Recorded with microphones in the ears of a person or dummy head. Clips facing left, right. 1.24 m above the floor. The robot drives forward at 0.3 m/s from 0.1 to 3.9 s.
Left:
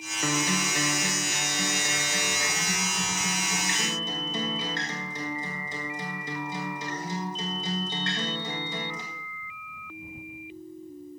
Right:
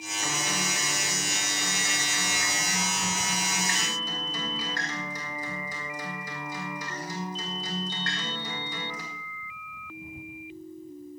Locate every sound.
0.2 s a guitar: 60° left (ahead or behind), 0.7 m; by 9.0 s 25° left (ahead or behind), 1.5 m